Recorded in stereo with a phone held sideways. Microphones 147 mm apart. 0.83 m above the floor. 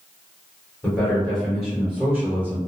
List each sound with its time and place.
0.8 s a man speaking: 15° left (ahead or behind), 1.4 m; by 2.6 s 20° right (ahead or behind), 1.2 m